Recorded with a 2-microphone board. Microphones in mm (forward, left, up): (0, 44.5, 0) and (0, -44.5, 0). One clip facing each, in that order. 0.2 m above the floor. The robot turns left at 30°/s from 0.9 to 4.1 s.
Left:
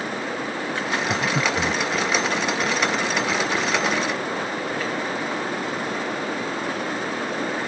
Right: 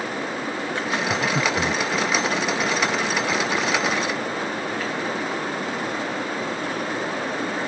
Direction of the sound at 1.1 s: 10° left (ahead or behind).